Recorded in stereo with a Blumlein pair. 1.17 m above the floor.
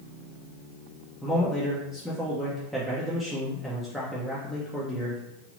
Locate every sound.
1.2 s a man speaking: straight ahead, 0.7 m